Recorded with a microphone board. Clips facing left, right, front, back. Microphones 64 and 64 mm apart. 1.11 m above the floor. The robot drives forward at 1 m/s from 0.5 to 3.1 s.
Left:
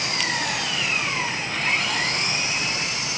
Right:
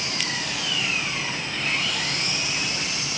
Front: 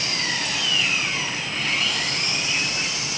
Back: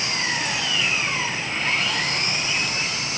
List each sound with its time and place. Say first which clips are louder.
0.0 s an engine running: left 4 dB, back 2 dB; 110° left, 7 m; by 3.2 s 130° left, 8 m